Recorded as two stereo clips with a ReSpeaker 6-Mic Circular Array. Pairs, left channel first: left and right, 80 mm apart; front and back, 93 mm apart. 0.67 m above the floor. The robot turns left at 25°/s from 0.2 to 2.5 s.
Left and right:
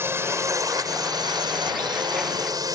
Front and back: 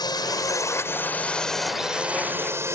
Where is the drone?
35° right; by 2.8 s 120° right.